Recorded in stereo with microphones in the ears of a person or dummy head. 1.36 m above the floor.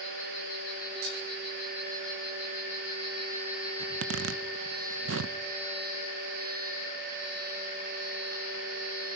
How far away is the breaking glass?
About 9.5 m.